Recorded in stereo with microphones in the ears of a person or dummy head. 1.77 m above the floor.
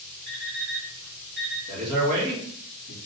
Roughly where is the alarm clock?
Right.